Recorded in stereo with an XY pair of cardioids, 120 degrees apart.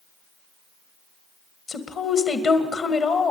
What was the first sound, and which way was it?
A woman speaking, 45° left.